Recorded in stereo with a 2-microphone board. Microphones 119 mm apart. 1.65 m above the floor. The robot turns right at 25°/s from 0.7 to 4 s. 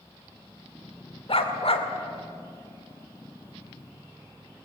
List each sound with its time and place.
1.3 s a dog barking: 55° left (ahead or behind), 2 m; by 1.9 s 60° left (ahead or behind), 2 m